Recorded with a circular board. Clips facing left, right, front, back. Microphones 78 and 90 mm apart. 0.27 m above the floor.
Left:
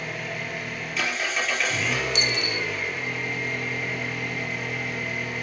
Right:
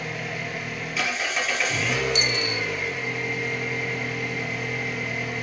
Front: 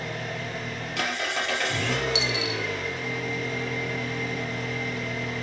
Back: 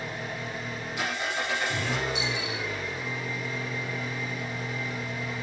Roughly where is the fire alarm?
No fire alarm in this recording.